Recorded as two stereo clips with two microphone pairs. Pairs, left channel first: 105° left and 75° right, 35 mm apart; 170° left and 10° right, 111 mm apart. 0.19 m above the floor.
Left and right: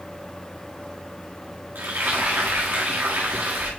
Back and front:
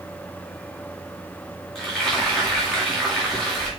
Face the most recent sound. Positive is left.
turn(degrees=-105)